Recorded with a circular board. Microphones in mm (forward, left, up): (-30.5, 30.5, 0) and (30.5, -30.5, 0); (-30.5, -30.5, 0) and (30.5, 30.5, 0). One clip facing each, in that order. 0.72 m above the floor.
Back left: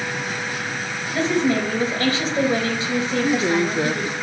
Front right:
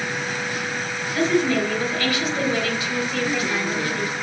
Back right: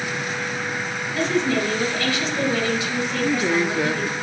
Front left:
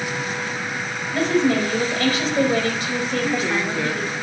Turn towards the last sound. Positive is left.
turn(degrees=160)